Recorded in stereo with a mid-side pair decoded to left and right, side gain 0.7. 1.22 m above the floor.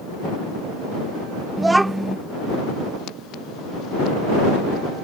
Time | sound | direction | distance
1.6 | a child speaking | 10° right | ?